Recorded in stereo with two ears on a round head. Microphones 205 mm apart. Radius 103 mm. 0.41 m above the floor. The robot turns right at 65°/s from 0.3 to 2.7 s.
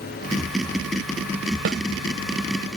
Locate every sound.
1.6 s a snare drum: 55° right (ahead or behind); by 1.8 s 50° right (ahead or behind)